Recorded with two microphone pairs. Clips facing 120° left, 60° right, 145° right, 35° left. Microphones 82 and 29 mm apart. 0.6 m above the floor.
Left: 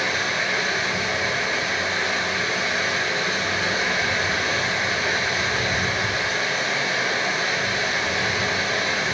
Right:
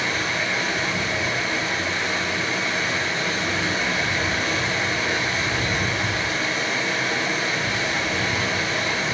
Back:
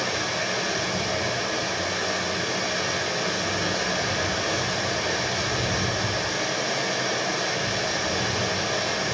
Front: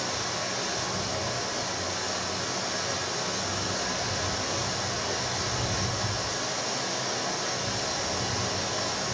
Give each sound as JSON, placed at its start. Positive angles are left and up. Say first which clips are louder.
{"t": 0.0, "sound": "running water", "louder": "left 1 dB, back 5 dB", "azimuth_deg": -165, "distance_m": 7.5}